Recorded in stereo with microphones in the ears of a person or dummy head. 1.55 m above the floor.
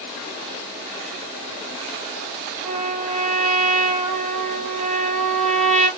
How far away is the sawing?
I don't hear sawing.